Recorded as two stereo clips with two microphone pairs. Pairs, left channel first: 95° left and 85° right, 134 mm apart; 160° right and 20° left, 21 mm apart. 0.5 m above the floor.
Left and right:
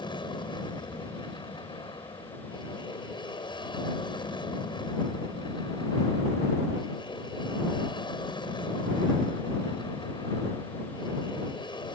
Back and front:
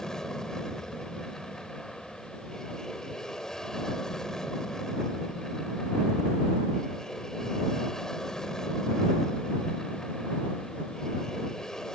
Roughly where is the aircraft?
Behind left.